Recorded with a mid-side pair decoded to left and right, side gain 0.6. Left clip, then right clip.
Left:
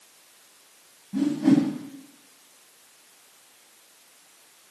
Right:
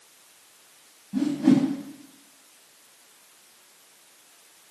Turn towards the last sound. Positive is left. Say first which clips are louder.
# even
turn(degrees=0)